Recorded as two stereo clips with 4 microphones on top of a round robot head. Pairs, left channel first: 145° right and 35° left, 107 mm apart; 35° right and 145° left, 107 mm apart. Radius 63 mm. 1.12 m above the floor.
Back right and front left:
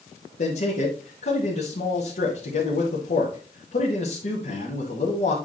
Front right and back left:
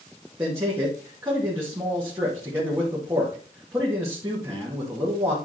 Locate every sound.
0.4 s a man speaking: 150° right, 2 m